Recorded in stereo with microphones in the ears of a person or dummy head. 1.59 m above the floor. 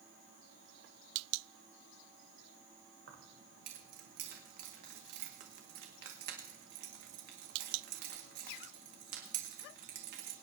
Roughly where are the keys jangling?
Right.